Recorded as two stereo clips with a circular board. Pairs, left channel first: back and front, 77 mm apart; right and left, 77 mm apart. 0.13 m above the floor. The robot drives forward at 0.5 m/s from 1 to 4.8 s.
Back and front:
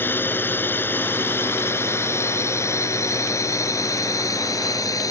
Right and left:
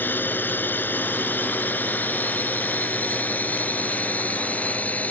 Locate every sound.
0.0 s a drone: 135° right; by 5.1 s 155° right